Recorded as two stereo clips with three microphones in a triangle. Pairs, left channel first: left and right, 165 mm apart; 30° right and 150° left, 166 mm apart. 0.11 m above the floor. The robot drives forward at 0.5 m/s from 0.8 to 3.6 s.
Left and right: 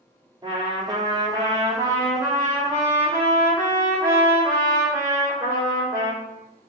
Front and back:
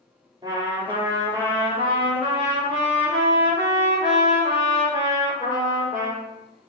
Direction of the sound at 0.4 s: 150° right.